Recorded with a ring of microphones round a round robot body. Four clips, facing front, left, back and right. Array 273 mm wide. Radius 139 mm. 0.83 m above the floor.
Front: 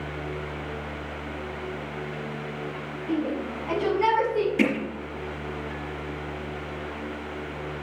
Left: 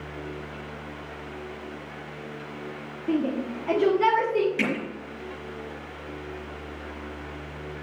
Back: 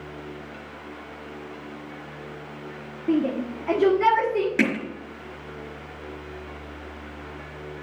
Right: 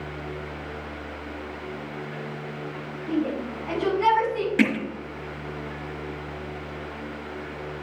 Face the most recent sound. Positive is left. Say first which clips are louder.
# right 5 dB, even
turn(degrees=-145)